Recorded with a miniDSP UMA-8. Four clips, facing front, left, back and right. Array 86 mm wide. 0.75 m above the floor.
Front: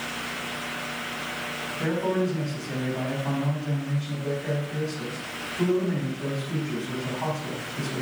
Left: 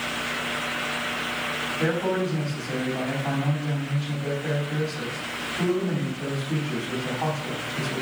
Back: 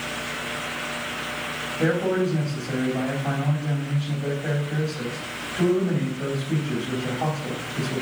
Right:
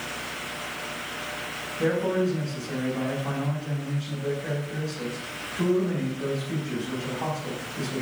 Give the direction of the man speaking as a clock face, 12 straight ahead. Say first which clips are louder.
Right 1 dB, back 3 dB; 6 o'clock.